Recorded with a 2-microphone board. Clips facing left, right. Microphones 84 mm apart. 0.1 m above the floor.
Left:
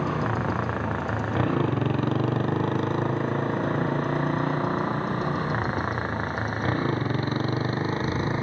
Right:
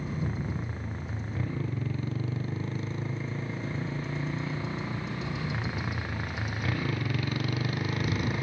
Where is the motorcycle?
85° left; by 8.4 s 35° left (ahead or behind).